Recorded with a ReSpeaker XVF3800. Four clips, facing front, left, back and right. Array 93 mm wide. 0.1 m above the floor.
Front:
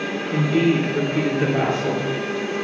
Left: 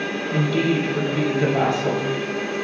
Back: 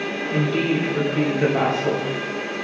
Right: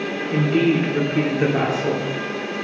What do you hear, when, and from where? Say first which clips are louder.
0.3 s a woman speaking: right 3 dB, front 3 dB; 80° right, 2 m